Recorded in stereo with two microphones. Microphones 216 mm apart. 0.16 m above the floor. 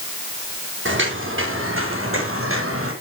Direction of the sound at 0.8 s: 60° right (ahead or behind).